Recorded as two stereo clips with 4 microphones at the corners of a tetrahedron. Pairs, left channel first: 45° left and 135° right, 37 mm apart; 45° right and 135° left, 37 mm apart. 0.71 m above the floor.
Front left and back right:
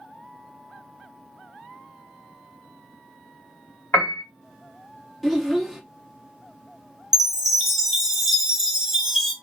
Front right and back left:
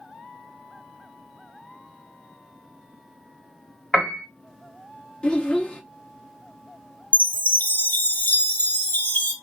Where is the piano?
40° left, 1.3 m.